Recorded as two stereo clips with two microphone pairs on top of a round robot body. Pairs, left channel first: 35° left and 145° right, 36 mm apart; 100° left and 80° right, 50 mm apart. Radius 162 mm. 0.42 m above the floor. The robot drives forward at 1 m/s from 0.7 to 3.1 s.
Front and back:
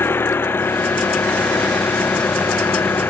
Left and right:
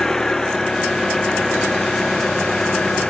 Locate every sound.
0.0 s an engine running: 20° left; by 3.1 s 25° left